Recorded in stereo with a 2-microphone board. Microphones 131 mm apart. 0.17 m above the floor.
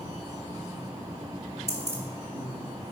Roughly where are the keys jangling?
Right.